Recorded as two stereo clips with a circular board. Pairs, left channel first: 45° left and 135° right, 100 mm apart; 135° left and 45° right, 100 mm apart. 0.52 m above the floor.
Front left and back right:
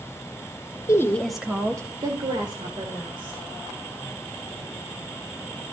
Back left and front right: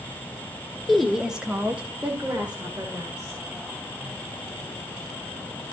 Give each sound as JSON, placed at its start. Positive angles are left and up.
{"t": 0.9, "sound": "a woman speaking", "azimuth_deg": 45, "distance_m": 1.2}